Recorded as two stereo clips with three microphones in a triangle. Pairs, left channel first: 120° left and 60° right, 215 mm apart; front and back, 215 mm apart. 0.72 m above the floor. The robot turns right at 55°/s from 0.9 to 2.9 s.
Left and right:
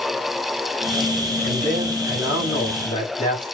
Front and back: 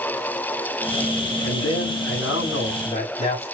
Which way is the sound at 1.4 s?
20° right.